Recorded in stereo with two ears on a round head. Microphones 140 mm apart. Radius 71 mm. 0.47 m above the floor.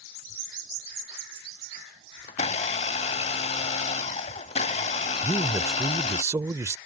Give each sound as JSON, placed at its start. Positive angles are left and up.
{"t": 2.3, "sound": "a blender", "side_deg": 40}
{"t": 5.2, "sound": "a man speaking", "side_deg": -20}